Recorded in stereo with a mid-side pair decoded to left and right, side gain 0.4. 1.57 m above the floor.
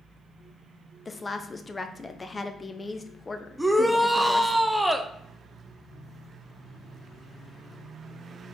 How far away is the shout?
About 0.8 m.